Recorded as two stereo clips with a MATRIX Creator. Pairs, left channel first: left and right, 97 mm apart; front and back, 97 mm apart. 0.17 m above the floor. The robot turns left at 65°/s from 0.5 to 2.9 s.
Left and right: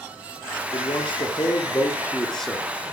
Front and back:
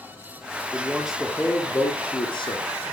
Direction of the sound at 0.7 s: 115° left.